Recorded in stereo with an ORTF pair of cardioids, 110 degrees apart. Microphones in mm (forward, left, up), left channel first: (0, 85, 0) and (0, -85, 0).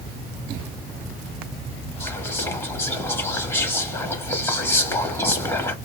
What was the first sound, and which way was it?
Whispering, 20° left.